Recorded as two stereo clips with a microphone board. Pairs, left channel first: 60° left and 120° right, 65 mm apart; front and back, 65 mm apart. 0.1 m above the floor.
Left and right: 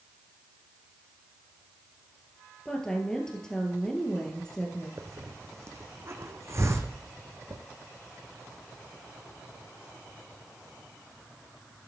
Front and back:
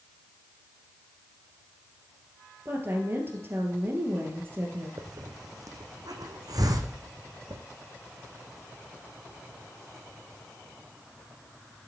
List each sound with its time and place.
2.6 s a woman speaking: 135° left, 2.5 m
5.0 s a hiss: 165° right, 1.0 m